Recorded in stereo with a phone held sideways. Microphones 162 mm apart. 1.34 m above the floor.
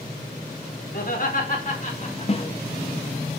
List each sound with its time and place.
0.9 s laughter: 65° left (ahead or behind), 4.5 m; by 2.5 s 45° left (ahead or behind), 5 m
2.3 s a snare drum: 35° left (ahead or behind), 0.7 m